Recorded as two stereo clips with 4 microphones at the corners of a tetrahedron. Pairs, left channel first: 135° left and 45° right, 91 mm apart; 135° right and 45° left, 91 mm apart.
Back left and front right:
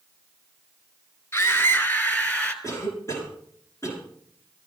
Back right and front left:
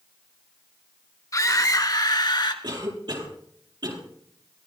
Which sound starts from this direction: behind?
A scream, at 1.3 s.